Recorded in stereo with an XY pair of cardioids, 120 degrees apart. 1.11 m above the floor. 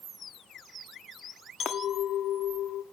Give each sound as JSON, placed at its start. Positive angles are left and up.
{"t": 1.6, "sound": "a clink", "azimuth_deg": 60, "distance_m": 1.1}